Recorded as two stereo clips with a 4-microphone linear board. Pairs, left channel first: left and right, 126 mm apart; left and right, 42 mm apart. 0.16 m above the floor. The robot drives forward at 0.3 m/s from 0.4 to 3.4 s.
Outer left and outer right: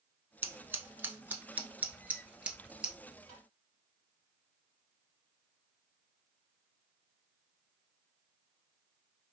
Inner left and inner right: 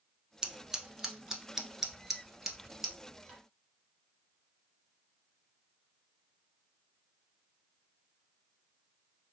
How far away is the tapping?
About 3.5 m.